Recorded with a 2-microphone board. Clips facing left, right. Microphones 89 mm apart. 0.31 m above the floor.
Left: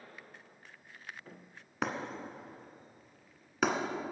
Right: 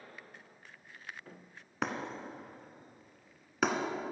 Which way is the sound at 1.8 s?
Centre (ahead or behind).